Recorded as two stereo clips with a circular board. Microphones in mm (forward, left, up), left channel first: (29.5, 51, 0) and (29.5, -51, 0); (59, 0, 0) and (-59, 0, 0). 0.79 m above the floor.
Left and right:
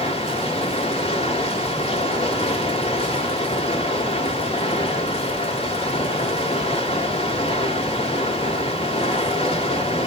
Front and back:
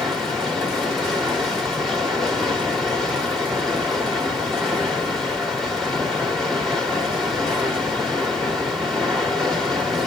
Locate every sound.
0.0 s running water: 90° left, 2 m